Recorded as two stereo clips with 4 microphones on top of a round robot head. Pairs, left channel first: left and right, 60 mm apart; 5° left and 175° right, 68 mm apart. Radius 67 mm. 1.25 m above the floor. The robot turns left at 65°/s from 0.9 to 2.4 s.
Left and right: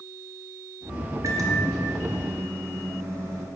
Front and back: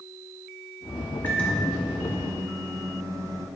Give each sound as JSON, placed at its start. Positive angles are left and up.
{"t": 1.2, "sound": "a microwave", "azimuth_deg": -55, "distance_m": 1.0}